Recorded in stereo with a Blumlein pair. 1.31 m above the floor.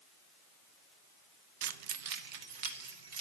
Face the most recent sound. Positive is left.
turn(degrees=-45)